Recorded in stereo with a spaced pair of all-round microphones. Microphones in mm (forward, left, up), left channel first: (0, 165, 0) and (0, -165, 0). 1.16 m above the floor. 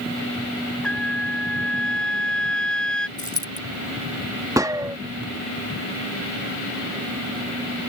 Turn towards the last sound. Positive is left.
turn(degrees=-10)  # may be behind; listen again after turning